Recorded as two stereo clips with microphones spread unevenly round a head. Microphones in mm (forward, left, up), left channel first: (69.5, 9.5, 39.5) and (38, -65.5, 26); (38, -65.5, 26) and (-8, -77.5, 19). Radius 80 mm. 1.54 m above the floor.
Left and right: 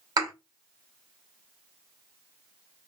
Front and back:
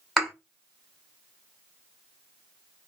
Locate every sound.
0.2 s a thud: 75° right, 2.5 m